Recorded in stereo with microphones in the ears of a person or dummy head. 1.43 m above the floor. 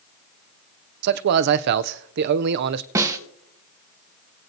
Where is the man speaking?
55° right (ahead or behind), 0.5 m.